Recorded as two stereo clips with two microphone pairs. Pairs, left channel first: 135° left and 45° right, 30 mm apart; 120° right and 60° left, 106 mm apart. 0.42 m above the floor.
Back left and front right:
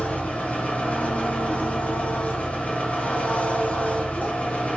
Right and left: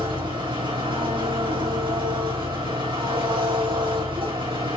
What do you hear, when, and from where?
0.0 s an engine running: 95° left, 6 m